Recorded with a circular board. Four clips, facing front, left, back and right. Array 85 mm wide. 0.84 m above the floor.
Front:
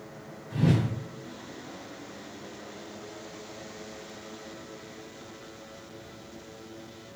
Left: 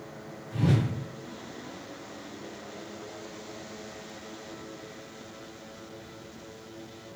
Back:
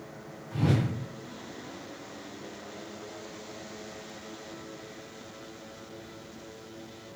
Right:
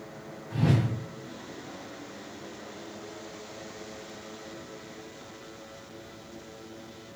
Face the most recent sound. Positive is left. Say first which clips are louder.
# even, front 2 dB
turn(degrees=-40)